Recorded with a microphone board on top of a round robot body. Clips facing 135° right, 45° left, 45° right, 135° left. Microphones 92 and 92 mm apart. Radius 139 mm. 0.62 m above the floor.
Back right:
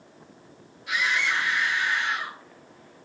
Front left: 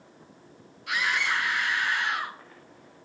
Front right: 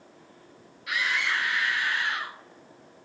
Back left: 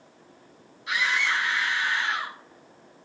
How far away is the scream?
About 6.5 m.